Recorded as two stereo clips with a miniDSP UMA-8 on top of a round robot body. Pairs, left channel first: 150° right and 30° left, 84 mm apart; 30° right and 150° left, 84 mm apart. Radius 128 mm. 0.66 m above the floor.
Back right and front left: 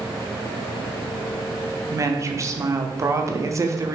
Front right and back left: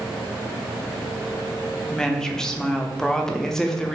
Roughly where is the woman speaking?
Ahead left.